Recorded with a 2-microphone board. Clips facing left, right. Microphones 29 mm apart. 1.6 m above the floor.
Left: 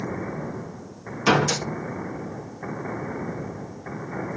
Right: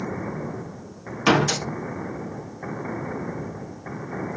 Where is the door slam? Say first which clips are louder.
Right 1 dB; 15° right (ahead or behind), 1.2 m.